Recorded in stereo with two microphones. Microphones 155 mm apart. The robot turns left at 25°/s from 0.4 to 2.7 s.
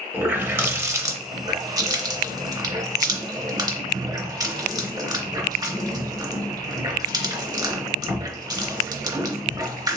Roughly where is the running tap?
Centre.